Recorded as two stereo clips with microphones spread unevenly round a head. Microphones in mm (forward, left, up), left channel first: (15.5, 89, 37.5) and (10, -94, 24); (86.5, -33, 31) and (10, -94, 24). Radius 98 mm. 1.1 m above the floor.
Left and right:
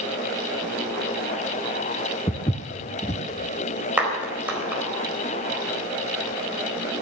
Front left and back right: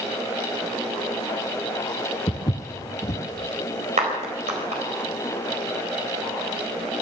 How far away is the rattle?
No rattle in this recording.